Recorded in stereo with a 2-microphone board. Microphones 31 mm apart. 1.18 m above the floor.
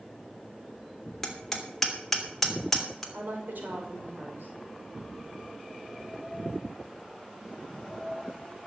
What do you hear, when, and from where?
1.2 s hammering: 5° left (ahead or behind), 3 m
3.1 s a woman speaking: 80° right, 5 m